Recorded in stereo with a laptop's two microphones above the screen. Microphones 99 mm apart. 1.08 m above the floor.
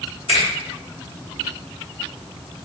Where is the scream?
I don't hear a scream.